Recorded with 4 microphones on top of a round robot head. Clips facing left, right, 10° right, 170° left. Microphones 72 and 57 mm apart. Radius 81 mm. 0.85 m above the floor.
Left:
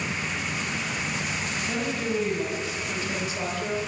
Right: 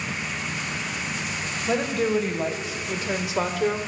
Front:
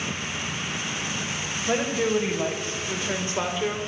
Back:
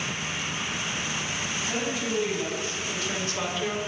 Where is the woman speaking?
65° right, 4 m; by 3.8 s 95° right, 2.5 m.